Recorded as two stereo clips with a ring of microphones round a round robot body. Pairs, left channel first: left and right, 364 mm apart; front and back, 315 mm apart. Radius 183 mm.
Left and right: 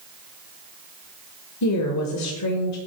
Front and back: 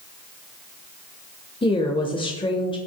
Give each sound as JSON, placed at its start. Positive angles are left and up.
{"t": 1.6, "sound": "a woman speaking", "azimuth_deg": 70, "distance_m": 1.1}